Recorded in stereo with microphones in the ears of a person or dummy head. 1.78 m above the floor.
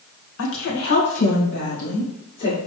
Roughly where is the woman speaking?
Left.